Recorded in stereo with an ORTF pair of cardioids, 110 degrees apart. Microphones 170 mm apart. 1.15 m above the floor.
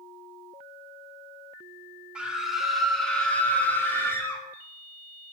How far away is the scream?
About 2.5 m.